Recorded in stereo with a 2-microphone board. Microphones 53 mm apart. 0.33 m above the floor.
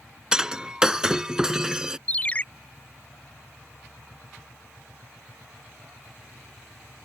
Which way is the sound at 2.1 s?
25° left (ahead or behind).